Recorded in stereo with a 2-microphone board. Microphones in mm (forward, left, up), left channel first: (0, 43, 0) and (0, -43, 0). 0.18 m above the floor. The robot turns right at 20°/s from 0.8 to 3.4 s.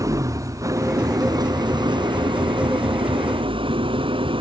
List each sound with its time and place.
0.0 s an engine running: 140° right; by 4.4 s 90° right